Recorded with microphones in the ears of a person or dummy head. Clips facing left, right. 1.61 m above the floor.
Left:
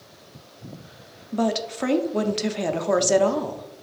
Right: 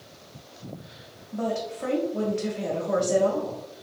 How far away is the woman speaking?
About 0.5 m.